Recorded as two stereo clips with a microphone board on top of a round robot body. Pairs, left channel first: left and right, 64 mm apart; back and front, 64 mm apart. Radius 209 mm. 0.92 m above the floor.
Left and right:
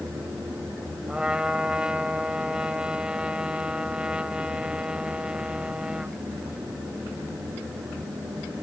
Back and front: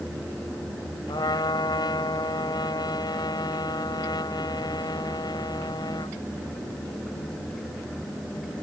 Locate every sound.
1.1 s a trumpet: 165° right